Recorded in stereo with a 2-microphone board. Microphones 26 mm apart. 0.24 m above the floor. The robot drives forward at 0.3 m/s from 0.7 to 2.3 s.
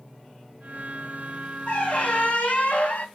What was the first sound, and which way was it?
A squeak, 50° left (ahead or behind).